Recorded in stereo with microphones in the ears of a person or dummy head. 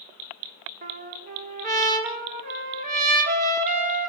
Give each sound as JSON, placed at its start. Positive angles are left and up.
{"t": 0.8, "sound": "a trumpet", "side_deg": -45, "distance_m": 3.0}